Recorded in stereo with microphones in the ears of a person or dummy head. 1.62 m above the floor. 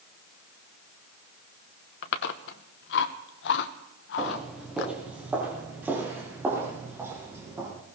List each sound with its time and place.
2.0 s chewing: 55° left (ahead or behind), 0.9 m
4.2 s footsteps: centre (ahead or behind), 3 m; by 7.7 s 15° right (ahead or behind), 5 m